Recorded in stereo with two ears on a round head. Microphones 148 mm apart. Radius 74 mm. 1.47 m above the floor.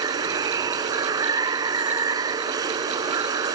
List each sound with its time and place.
0.0 s running water: 25° right (ahead or behind)